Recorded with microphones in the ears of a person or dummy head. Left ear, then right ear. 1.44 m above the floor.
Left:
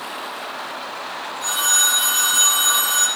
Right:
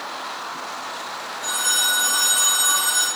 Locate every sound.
1.4 s a phone ringing: 40° left (ahead or behind), 6.5 m